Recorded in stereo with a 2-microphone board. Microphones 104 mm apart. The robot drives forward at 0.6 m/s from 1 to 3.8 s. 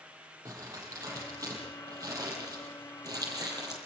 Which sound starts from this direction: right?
Crumpling, at 0.5 s.